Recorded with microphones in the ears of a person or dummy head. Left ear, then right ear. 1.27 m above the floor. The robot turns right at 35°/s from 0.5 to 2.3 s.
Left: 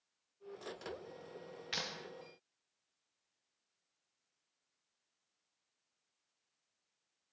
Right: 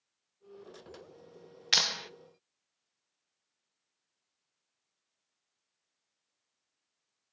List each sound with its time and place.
1.7 s a clap: 45° right (ahead or behind), 0.7 m; by 2.1 s 30° right (ahead or behind), 0.7 m